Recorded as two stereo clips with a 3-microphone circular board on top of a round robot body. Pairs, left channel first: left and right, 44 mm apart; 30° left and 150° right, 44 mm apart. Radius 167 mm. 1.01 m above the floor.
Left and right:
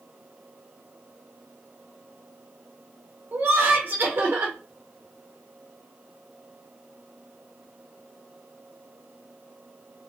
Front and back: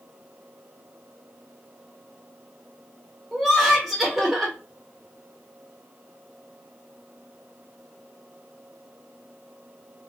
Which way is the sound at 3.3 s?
65° right.